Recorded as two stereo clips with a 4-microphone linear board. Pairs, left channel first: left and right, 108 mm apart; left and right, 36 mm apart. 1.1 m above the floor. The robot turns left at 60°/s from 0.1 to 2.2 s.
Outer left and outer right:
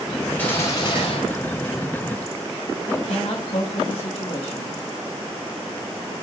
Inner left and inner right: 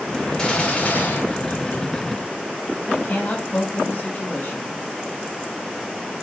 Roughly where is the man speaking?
Left.